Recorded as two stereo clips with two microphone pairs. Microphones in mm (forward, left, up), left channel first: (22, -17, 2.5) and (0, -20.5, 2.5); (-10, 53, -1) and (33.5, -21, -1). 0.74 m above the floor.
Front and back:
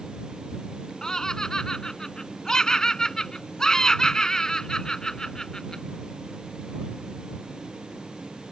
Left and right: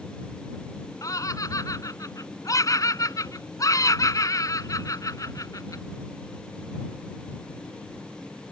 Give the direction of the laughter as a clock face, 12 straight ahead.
10 o'clock.